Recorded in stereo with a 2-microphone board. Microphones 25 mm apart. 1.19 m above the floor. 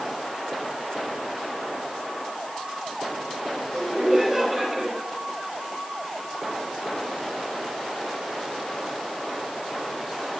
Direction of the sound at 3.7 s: 5° right (ahead or behind).